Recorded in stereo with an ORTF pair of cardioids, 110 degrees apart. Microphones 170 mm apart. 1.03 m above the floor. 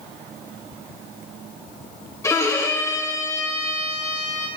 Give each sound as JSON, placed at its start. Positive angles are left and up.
{"t": 2.2, "sound": "a violin", "azimuth_deg": 15, "distance_m": 1.4}